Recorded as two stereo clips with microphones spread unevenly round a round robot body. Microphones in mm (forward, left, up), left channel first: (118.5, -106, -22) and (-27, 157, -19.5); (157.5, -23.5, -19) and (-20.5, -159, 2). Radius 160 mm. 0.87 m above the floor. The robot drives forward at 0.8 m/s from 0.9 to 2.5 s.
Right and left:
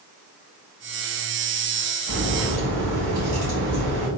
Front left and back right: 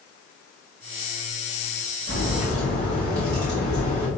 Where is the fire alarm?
I don't hear a fire alarm.